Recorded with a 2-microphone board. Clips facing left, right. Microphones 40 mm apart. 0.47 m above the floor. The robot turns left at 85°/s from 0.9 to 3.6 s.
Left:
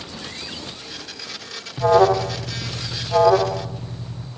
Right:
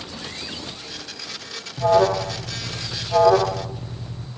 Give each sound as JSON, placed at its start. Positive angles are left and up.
{"t": 1.8, "sound": "an alarm", "side_deg": 20, "distance_m": 1.4}